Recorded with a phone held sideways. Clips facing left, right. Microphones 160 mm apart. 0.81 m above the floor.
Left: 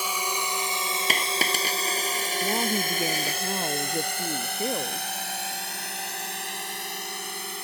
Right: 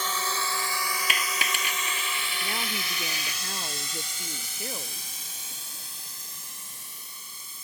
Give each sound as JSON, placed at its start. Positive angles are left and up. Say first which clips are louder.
{"t": 0.0, "sound": "a drone", "louder": "left 1 dB", "side_deg": 10}
{"t": 1.1, "sound": "a dropped coin", "louder": "left 4 dB", "side_deg": 40}
{"t": 2.4, "sound": "a woman speaking", "louder": "left 10 dB", "side_deg": 35}